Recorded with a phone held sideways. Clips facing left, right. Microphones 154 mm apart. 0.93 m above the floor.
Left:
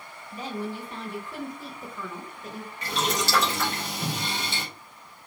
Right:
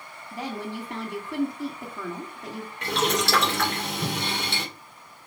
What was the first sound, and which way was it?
A woman speaking, 75° right (ahead or behind).